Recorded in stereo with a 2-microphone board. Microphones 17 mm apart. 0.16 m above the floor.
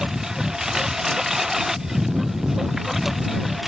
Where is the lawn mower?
40° right (ahead or behind); by 3.7 s 15° right (ahead or behind).